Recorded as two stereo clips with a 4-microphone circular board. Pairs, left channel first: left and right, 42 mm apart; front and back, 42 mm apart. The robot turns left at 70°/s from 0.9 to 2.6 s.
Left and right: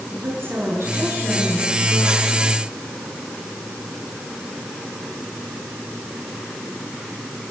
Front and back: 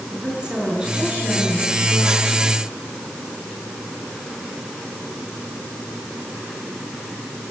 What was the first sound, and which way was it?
A woman speaking, 110° right.